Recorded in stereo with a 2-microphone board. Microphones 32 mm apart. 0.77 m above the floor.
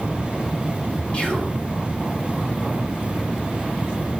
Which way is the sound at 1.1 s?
35° left (ahead or behind).